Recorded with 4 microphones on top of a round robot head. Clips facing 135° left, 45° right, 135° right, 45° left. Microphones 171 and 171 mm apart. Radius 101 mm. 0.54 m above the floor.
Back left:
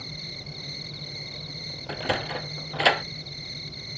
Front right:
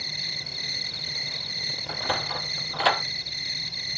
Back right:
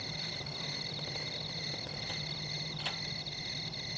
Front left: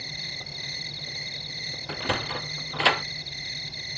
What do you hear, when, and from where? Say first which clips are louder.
0.0 s an insect: back left 2 dB, even; 30° right
1.9 s a sliding door: back left 2 dB, front left 14 dB; 65° left